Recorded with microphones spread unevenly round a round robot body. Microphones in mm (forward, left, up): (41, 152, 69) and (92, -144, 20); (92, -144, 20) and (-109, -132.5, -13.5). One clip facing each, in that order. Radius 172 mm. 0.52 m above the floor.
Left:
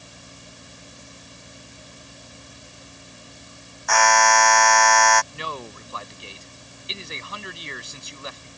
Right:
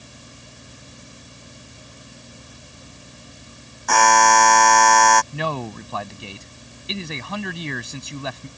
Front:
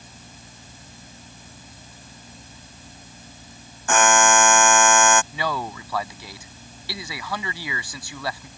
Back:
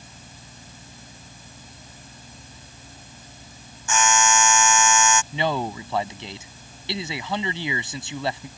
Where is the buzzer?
35° right.